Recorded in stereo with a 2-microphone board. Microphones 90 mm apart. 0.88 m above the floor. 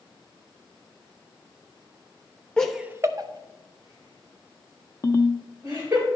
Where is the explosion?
No explosion in this recording.